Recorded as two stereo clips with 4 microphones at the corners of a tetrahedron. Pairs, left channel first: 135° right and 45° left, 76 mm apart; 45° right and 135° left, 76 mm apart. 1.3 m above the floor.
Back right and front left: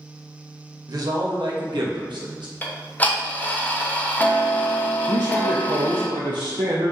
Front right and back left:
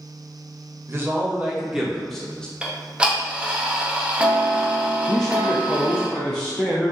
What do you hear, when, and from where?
0.9 s a man speaking: 80° left, 0.9 m; by 2.5 s 35° left, 1.2 m
2.6 s ticking: 170° right, 0.5 m
5.1 s a man speaking: 40° left, 0.5 m